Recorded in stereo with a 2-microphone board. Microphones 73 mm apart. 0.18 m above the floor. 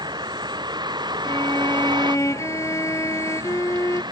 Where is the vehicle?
75° right (ahead or behind).